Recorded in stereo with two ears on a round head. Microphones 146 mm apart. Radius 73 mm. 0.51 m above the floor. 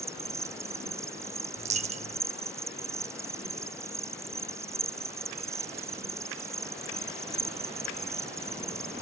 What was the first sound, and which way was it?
An insect, 20° right (ahead or behind).